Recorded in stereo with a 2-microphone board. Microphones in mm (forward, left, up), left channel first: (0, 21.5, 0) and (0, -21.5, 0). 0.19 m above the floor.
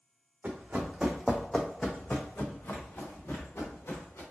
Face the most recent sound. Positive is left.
turn(degrees=75)  # may be behind; listen again after turning